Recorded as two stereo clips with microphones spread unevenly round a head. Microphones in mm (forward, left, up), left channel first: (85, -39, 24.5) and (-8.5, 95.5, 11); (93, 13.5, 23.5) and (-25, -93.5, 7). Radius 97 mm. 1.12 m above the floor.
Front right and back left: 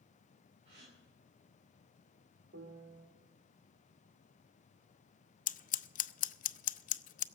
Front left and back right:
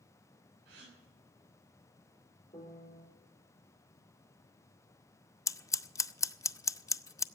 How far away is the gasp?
About 9 m.